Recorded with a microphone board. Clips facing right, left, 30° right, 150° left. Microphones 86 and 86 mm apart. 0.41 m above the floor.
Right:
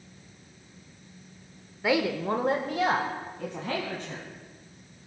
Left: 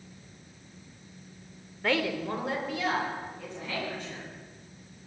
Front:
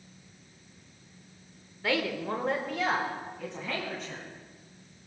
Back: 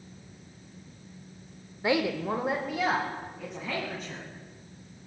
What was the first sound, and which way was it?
A woman speaking, 165° right.